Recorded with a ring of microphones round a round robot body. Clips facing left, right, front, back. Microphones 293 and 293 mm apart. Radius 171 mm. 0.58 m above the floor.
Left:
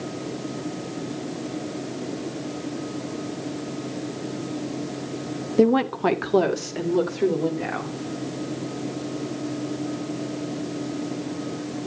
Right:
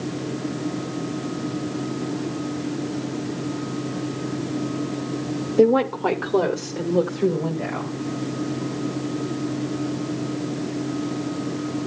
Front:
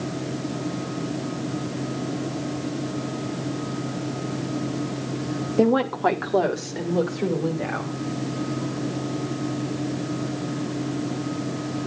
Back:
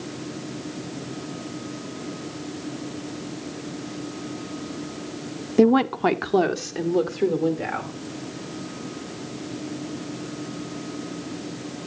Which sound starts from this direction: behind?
A woman speaking, at 5.6 s.